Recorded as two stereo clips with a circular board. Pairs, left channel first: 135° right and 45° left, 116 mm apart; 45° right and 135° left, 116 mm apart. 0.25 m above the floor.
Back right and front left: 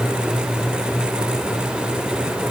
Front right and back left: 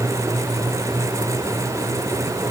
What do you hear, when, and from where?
Only background noise.